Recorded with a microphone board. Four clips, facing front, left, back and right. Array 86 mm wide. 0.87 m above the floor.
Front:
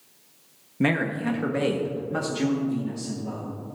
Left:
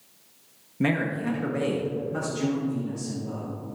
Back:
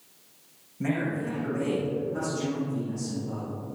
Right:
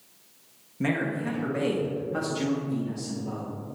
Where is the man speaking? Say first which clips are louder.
Left 2 dB, front 4 dB; 20° left, 1.3 m; by 3.5 s 25° right, 2.5 m.